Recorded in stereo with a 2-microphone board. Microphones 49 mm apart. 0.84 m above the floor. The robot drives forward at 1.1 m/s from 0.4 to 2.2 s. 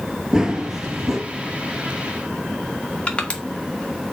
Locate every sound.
0.3 s running footsteps: 15° right (ahead or behind), 1.0 m; by 1.2 s 10° right (ahead or behind), 1.7 m
3.1 s crushing: 25° left (ahead or behind), 1.8 m